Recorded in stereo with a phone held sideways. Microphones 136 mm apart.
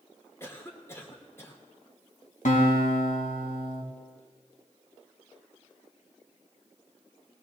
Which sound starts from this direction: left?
A guitar, at 2.5 s.